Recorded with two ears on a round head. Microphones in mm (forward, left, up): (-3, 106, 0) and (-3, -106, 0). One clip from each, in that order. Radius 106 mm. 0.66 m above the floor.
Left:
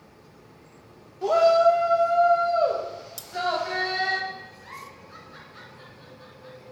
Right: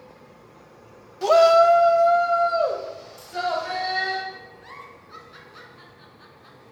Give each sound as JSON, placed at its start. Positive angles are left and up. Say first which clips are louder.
{"t": 1.2, "sound": "a shout", "louder": "right 3 dB", "side_deg": -55, "distance_m": 0.8}
{"t": 3.2, "sound": "cutlery clinking", "louder": "left 2 dB", "side_deg": 65, "distance_m": 0.7}
{"t": 4.6, "sound": "a giggle", "louder": "even", "side_deg": -15, "distance_m": 1.7}